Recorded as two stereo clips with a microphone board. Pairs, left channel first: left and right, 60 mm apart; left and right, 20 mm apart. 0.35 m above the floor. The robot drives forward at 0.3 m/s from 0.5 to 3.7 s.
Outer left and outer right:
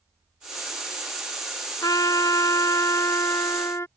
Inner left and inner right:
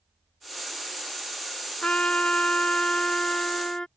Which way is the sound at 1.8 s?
85° left.